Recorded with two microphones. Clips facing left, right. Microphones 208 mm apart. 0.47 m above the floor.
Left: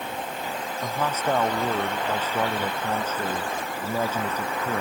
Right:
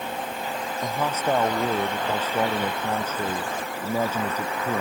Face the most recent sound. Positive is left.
turn(degrees=-10)  # may be behind; listen again after turning